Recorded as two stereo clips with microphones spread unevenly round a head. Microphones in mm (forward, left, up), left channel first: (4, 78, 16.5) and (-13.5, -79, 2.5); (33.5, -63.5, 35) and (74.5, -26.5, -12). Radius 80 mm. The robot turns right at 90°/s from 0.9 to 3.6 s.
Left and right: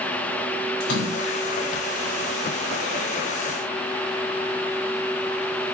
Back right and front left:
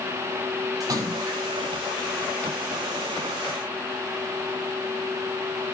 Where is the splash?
60° left, 6.5 m; by 1.4 s 105° left, 6.5 m.